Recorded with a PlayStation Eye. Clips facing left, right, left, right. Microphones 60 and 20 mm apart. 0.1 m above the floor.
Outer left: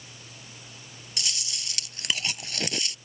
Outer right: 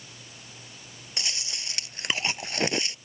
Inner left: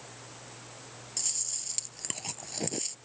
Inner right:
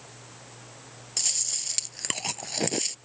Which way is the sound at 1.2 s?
35° right (ahead or behind).